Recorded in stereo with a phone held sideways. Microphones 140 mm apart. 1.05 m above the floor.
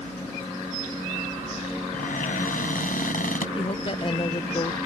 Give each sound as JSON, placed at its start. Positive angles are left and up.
{"t": 1.9, "sound": "a cupboard door", "side_deg": 85}
{"t": 3.6, "sound": "a woman speaking", "side_deg": 40}